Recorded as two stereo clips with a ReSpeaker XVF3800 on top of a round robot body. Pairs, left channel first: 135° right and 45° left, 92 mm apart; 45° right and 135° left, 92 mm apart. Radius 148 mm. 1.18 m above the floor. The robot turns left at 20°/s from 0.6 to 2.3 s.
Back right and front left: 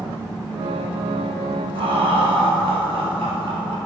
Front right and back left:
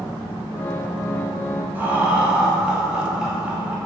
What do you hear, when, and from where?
1.8 s laughter: 65° left, 1.6 m; by 3.8 s 55° left, 1.6 m